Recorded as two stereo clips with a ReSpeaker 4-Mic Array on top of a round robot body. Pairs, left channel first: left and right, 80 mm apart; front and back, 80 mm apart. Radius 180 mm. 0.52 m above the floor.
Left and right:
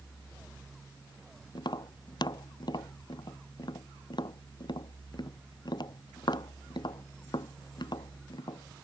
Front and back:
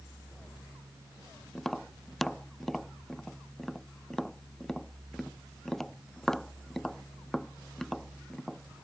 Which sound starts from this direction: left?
Tapping, at 1.6 s.